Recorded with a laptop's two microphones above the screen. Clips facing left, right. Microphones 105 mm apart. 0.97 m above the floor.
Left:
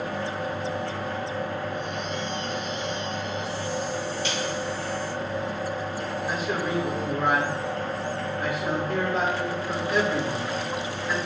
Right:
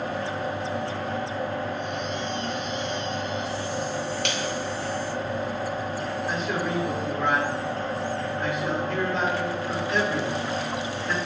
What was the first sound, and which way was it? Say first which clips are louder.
A machine running: right 1 dB; 40° right (ahead or behind).